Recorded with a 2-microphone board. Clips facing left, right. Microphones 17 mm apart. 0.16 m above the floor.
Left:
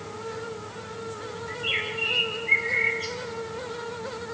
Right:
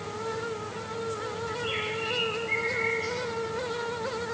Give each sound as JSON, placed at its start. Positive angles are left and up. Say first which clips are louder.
{"t": 1.5, "sound": "a bird", "louder": "left 5 dB", "side_deg": 25, "distance_m": 5.5}